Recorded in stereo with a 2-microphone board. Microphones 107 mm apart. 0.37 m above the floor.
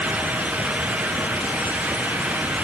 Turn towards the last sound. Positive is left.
No sound to turn to.